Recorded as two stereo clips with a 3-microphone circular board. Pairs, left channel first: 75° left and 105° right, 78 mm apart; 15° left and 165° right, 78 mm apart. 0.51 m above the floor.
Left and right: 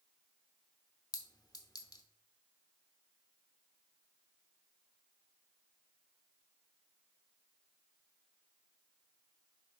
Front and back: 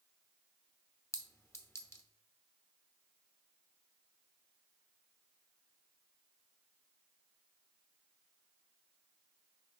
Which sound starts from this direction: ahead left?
A clink, at 1.1 s.